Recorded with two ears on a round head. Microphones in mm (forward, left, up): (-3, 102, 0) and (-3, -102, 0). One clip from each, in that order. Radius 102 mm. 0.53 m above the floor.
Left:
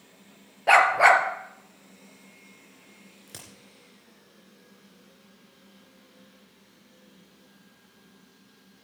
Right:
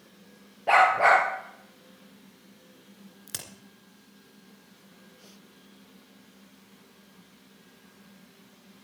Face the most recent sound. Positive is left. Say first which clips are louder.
# right 6 dB
turn(degrees=-35)  # may be behind; listen again after turning